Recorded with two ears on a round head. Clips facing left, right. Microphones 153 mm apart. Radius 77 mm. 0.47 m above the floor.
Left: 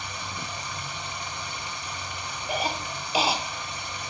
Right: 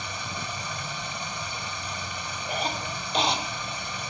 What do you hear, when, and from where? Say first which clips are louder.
0.0 s running water: right 1 dB; 75° right (ahead or behind), 2.0 m
2.5 s a cough: left 1 dB; 5° left (ahead or behind), 0.9 m